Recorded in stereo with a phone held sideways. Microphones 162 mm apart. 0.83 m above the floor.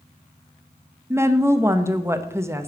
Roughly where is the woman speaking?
Centre.